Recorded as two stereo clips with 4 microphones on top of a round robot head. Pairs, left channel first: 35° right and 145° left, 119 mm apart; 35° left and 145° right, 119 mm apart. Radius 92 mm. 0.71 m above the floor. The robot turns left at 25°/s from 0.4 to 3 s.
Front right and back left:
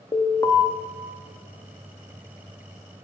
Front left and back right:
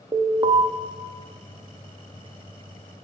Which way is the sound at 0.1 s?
95° right.